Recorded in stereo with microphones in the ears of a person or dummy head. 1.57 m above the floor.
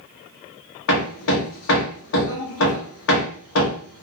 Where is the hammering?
75° left (ahead or behind), 0.8 m.